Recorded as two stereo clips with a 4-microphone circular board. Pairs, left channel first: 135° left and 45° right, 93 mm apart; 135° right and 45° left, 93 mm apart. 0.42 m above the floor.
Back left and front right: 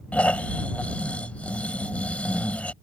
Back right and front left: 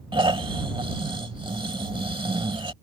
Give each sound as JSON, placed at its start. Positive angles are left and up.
{"t": 0.1, "sound": "snoring", "azimuth_deg": 60}